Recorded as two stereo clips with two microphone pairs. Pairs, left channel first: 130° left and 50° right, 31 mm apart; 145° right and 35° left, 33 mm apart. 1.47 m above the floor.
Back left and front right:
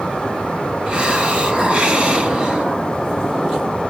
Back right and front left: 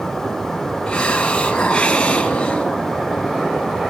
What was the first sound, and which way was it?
A hiss, 90° right.